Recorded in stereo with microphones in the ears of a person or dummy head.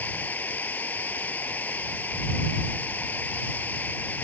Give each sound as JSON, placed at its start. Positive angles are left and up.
{"t": 0.0, "sound": "running water", "side_deg": 10}